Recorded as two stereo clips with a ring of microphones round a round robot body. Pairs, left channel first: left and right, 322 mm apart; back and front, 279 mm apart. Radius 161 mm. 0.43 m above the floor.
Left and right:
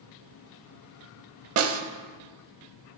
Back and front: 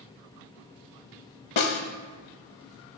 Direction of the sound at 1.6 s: 145° right.